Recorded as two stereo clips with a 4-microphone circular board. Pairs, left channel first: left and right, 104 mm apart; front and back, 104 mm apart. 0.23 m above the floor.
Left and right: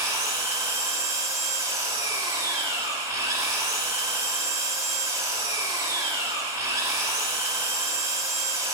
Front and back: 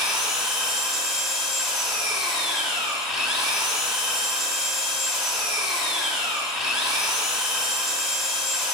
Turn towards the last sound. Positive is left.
turn(degrees=-100)